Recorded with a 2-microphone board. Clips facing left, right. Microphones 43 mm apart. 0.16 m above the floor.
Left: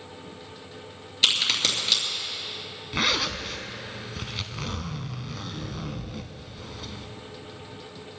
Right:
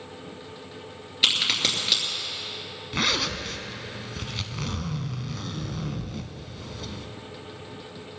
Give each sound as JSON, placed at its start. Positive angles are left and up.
{"t": 1.2, "sound": "a crack", "side_deg": -10, "distance_m": 3.0}
{"t": 2.9, "sound": "a zipper", "side_deg": 5, "distance_m": 0.9}